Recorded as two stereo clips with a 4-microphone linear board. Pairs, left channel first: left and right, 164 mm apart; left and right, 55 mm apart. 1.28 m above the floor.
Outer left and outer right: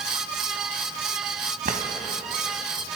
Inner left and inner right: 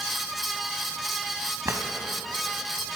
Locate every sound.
1.6 s a drawer: 55° right (ahead or behind), 2.5 m